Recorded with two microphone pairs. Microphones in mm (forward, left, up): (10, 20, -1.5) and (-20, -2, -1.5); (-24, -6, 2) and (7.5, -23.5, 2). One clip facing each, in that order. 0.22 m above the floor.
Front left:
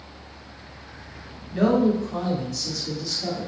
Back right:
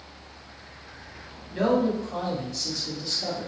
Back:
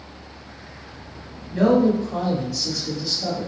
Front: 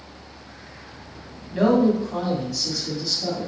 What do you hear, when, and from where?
1.5 s a man speaking: 60° right, 1.1 m; by 3.5 s 145° right, 1.3 m